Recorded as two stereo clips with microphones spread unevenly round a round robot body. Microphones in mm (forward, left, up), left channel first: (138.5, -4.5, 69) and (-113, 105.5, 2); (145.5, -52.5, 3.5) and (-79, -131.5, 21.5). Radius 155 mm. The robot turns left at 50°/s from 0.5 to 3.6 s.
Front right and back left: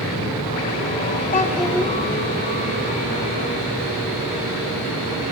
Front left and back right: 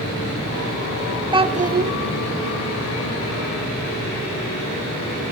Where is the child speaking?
90° right, 1.3 m; by 1.9 s 120° right, 1.3 m.